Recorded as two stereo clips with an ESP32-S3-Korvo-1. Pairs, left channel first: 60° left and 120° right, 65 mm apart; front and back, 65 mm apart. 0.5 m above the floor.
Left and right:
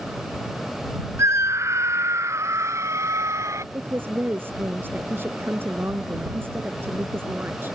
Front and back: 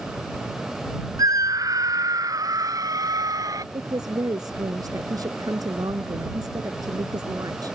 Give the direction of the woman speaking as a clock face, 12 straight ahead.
6 o'clock.